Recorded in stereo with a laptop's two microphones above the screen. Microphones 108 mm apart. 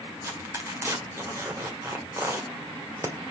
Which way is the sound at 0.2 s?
25° right (ahead or behind).